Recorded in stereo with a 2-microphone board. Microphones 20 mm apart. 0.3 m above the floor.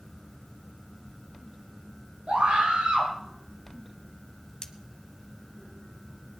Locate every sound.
2.3 s a scream: 75° right (ahead or behind), 4.5 m
4.6 s cutlery clinking: 25° left (ahead or behind), 1.0 m